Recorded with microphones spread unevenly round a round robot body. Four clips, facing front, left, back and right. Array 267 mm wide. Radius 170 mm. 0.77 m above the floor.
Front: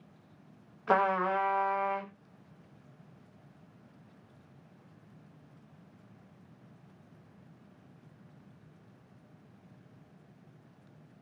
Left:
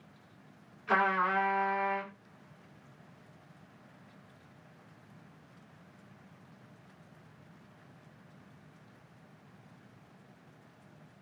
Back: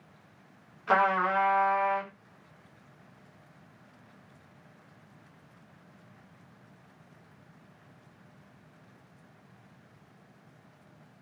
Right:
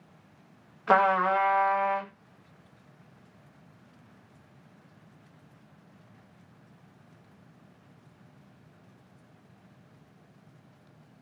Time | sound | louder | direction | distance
0.9 | a trumpet | right 6 dB, back 2 dB | 65° right | 1.1 m